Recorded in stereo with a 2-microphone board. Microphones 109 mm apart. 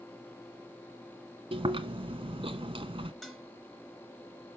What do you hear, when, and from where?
1.5 s chewing: 60° right (ahead or behind), 0.8 m
3.2 s dishes clattering: 5° left (ahead or behind), 1.9 m